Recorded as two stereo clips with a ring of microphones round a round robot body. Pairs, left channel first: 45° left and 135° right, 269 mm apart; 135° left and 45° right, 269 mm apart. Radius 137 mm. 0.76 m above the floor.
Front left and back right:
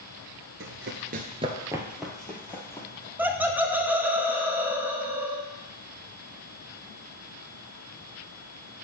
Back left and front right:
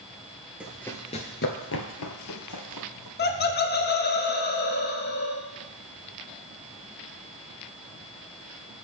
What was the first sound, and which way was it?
Running footsteps, 130° right.